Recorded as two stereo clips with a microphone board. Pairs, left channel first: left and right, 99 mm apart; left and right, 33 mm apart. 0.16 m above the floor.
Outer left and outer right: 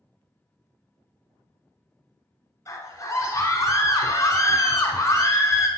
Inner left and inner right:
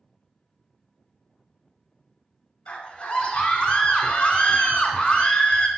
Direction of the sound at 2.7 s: 35° left (ahead or behind).